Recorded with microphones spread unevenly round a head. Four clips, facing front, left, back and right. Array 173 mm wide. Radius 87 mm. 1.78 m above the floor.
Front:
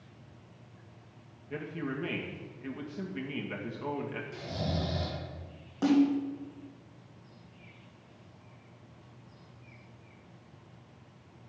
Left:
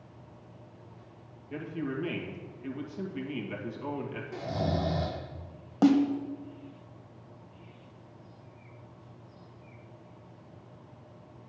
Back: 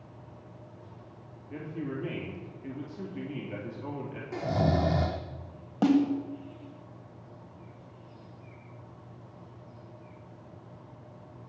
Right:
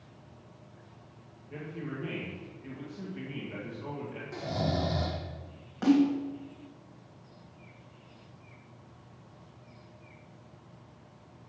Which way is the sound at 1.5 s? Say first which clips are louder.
Left 5 dB, even; 10° left.